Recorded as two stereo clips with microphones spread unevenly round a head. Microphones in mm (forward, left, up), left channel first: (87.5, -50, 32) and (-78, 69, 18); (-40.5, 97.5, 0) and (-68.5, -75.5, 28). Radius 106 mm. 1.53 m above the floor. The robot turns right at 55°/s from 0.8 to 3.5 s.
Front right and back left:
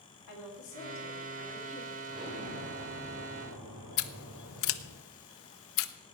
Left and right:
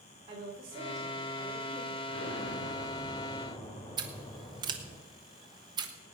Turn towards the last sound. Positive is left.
turn(degrees=-35)